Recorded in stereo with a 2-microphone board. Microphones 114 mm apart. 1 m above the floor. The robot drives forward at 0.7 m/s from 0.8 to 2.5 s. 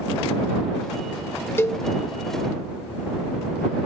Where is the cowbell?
20° left (ahead or behind), 0.7 m; by 1.9 s 25° left (ahead or behind), 0.5 m.